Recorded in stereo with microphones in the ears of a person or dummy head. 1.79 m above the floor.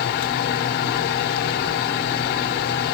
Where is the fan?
55° left (ahead or behind), 1.0 m.